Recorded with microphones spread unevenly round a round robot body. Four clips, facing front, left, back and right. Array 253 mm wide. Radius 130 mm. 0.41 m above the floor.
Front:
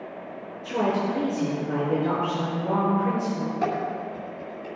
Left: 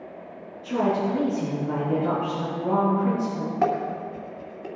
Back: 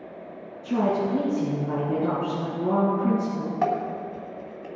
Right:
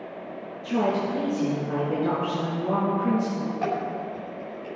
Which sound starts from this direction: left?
Dishes clattering, at 3.6 s.